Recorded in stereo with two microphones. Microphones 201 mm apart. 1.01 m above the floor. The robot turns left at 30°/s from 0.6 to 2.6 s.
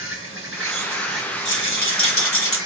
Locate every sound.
0.0 s an insect: 100° right, 1.2 m; by 2.7 s 160° right, 1.2 m
1.4 s a rattle: 120° left, 1.5 m; by 2.6 s 90° left, 1.5 m